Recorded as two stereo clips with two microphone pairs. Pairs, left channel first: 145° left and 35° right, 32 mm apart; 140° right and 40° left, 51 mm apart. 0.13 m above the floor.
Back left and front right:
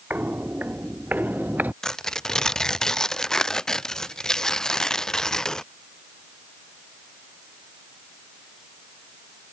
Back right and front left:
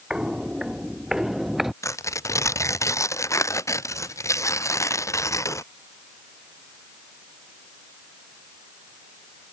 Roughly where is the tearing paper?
Behind right.